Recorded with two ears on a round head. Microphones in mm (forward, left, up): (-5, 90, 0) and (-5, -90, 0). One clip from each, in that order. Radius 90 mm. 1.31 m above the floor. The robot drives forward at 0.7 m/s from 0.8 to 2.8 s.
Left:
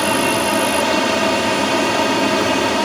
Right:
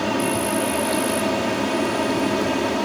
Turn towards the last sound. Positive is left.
turn(degrees=35)  # may be behind; listen again after turning